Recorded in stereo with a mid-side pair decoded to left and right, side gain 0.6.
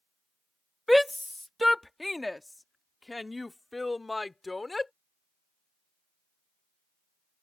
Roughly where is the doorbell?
No doorbell in this recording.